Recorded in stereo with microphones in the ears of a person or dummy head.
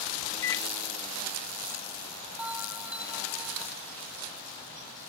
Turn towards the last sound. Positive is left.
turn(degrees=-5)  # may be behind; listen again after turning